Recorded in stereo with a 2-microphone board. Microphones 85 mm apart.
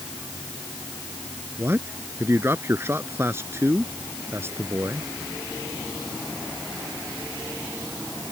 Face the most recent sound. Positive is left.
turn(degrees=-30)  # may be behind; listen again after turning